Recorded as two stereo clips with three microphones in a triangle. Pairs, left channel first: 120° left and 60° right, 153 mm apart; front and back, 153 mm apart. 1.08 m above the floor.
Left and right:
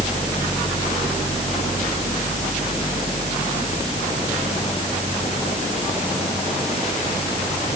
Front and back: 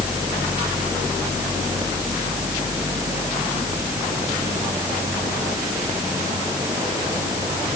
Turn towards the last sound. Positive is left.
No sound to turn to.